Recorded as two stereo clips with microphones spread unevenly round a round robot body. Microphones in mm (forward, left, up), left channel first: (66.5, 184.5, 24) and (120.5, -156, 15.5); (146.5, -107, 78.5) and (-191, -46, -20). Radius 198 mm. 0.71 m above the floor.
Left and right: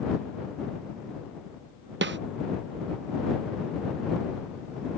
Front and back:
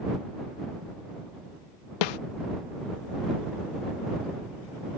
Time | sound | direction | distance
2.0 | a snare drum | 25° right | ?